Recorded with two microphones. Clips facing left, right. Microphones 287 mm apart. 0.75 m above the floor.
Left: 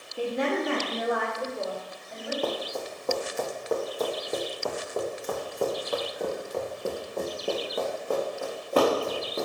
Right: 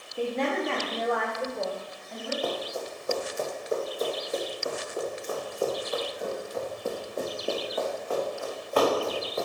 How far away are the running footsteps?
About 2.5 m.